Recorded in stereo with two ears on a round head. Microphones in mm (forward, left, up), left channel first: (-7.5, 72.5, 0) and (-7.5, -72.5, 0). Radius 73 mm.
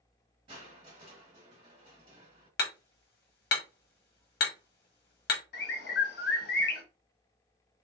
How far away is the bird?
About 0.9 m.